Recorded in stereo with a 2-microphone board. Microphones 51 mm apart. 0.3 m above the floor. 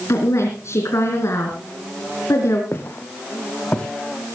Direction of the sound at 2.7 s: 50° left (ahead or behind).